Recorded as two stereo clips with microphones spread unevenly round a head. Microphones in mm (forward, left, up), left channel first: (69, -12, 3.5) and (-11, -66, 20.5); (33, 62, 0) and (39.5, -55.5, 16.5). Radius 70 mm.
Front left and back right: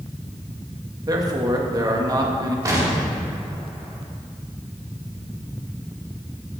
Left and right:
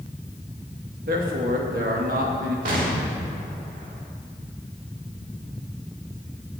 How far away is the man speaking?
About 2 m.